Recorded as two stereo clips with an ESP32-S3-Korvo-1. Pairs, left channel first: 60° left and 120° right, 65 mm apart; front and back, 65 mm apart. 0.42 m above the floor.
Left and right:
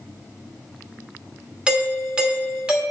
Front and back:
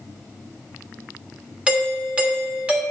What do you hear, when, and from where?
1.7 s a doorbell: 155° right, 1.4 m